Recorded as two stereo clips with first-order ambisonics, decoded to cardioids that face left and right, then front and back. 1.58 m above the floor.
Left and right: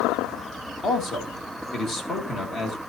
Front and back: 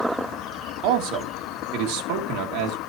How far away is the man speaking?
About 2.5 m.